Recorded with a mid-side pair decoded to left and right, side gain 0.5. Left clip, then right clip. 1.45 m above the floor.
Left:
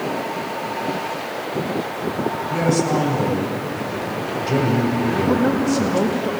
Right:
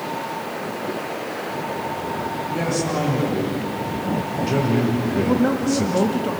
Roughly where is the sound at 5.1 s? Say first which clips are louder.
Left 1 dB; ahead.